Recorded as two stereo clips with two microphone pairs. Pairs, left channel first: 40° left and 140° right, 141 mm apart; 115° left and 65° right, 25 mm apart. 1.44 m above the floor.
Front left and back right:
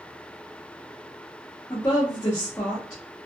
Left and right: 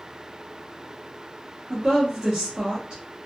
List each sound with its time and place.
1.7 s a woman speaking: 20° right, 0.9 m